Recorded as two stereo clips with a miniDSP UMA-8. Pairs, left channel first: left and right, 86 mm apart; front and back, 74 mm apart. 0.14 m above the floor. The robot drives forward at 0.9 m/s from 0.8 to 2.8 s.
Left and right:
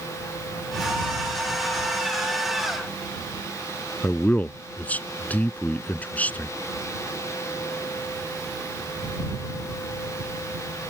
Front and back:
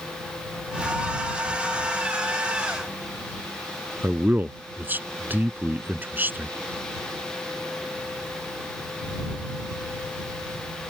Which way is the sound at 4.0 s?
145° left.